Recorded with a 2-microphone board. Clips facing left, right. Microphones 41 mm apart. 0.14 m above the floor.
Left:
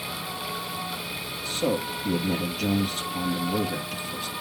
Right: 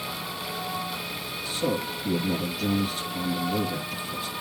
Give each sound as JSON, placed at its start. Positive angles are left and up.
{"t": 1.4, "sound": "a man speaking", "side_deg": 65, "distance_m": 2.5}